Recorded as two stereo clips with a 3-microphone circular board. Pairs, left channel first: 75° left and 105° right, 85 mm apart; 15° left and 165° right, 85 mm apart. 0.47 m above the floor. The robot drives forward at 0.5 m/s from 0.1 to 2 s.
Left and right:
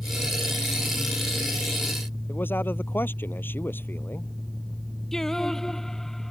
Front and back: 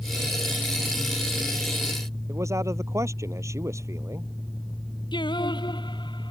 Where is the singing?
10° right.